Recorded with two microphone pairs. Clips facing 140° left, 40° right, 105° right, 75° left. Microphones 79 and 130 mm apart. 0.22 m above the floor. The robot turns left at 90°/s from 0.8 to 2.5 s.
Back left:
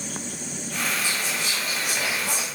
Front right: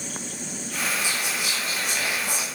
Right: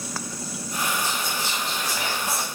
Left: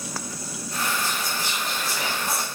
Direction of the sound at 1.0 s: 75° right.